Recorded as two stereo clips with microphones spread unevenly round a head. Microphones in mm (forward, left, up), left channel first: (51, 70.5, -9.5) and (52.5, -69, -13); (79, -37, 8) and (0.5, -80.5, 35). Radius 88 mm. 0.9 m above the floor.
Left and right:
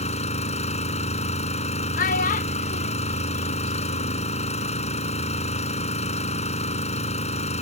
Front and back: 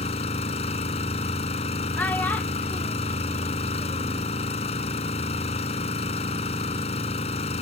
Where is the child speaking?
90° left.